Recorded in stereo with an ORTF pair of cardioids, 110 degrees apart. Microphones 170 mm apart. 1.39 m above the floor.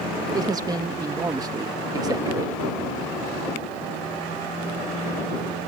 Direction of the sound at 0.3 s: 25° right.